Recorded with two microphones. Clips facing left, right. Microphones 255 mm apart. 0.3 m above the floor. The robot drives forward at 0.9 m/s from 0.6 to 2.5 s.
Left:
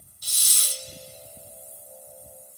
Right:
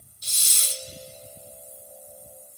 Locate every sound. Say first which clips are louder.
0.2 s a hiss: right 2 dB; 25° right (ahead or behind), 0.7 m